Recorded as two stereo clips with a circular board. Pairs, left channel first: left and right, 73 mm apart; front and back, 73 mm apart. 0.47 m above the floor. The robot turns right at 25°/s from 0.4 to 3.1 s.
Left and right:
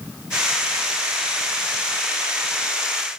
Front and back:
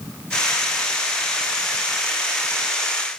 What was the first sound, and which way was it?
Only background noise.